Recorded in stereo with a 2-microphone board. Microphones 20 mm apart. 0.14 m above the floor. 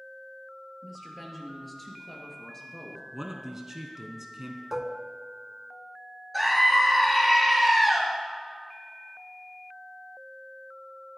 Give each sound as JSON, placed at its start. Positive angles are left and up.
{"t": 0.8, "sound": "a woman speaking", "side_deg": -10, "distance_m": 3.0}
{"t": 3.1, "sound": "a man speaking", "side_deg": -25, "distance_m": 1.2}
{"t": 4.7, "sound": "dishes clattering", "side_deg": -20, "distance_m": 0.7}
{"t": 6.3, "sound": "a scream", "side_deg": 5, "distance_m": 2.5}